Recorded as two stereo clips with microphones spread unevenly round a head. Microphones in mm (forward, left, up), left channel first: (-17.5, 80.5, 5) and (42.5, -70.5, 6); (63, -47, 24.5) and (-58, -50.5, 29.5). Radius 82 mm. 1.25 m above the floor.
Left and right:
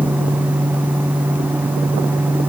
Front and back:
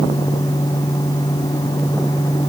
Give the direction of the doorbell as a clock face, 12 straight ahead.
I don't hear a doorbell.